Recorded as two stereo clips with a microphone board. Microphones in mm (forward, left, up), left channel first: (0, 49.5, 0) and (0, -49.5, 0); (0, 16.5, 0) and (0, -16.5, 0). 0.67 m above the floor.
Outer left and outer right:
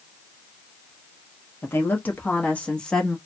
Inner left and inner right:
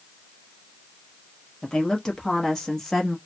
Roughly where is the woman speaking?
Left.